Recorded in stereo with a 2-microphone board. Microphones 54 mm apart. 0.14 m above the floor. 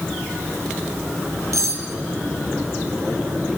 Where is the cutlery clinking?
70° right (ahead or behind), 2.5 m.